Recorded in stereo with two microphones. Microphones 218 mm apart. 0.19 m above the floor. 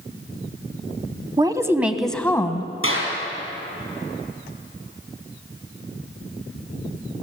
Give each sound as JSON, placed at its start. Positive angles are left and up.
{"t": 1.4, "sound": "a woman speaking", "side_deg": -20, "distance_m": 1.0}
{"t": 2.8, "sound": "a clap", "side_deg": 75, "distance_m": 4.5}